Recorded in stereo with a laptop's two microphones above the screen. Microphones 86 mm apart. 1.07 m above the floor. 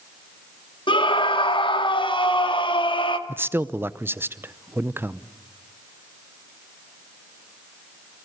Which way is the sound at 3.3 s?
25° right (ahead or behind).